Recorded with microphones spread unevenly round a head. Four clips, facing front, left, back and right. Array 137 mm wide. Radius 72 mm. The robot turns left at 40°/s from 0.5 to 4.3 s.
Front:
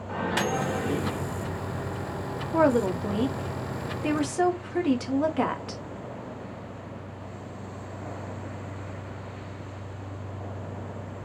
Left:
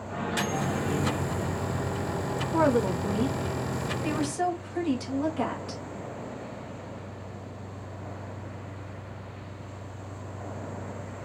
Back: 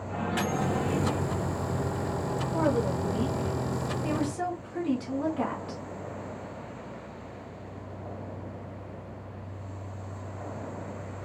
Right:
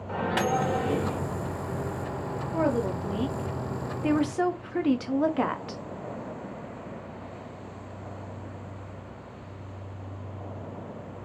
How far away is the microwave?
About 1.7 m.